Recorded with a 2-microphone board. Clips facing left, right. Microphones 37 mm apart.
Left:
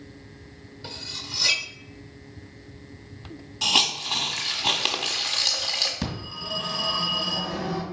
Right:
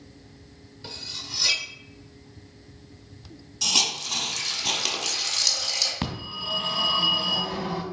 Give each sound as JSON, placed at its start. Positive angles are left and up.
{"t": 0.8, "sound": "cutlery clinking", "side_deg": 5, "distance_m": 0.9}
{"t": 3.6, "sound": "a hiss", "side_deg": 30, "distance_m": 1.2}
{"t": 6.0, "sound": "a phone ringing", "side_deg": -35, "distance_m": 2.5}